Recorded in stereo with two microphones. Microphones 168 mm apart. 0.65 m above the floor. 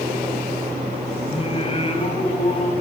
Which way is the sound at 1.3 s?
35° left (ahead or behind).